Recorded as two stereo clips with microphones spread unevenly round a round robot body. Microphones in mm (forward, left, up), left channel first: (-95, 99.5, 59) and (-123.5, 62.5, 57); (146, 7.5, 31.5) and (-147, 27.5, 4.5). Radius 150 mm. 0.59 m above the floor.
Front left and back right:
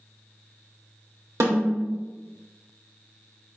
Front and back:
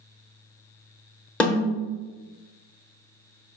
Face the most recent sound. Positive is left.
turn(degrees=-90)